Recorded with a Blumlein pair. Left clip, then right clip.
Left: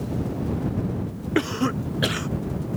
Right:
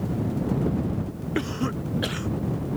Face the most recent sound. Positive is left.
turn(degrees=15)